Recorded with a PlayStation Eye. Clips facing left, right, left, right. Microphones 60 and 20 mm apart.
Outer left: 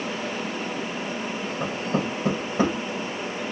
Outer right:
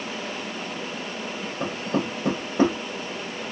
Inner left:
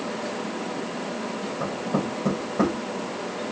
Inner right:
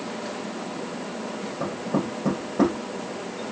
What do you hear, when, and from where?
1.6 s knocking: centre (ahead or behind), 5 m